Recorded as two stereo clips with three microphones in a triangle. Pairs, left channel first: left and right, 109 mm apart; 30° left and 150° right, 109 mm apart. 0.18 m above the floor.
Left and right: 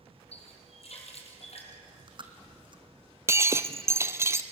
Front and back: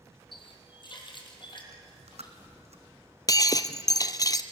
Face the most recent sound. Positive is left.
turn(degrees=-25)